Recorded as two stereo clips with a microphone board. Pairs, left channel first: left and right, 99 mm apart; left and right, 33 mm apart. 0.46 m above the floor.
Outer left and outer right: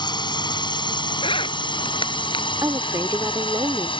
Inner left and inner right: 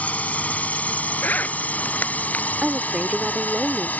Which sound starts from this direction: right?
A woman speaking, at 2.6 s.